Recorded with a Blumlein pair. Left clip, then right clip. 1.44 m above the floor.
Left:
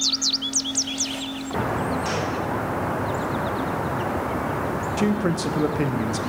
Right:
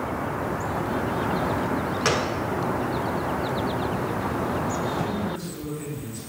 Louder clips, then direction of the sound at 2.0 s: Right 2 dB; 35° right.